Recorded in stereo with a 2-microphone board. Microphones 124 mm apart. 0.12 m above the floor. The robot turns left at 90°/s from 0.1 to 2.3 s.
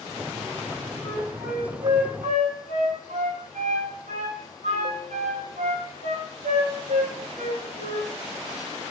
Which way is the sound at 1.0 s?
20° left (ahead or behind).